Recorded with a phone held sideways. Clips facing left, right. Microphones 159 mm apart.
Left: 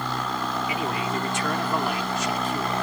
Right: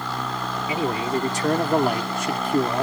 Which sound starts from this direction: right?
A man speaking, at 0.7 s.